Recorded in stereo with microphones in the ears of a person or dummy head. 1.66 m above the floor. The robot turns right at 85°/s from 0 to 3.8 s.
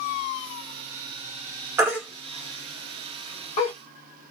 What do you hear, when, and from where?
1.8 s a baby crying: 20° right (ahead or behind), 1.2 m; by 3.7 s 30° left (ahead or behind), 1.2 m